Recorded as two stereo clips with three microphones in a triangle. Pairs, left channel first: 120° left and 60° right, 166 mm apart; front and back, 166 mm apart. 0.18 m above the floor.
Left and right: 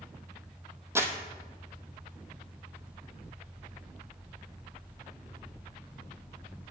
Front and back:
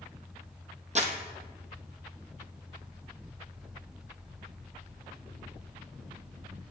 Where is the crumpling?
135° right, 1.1 m.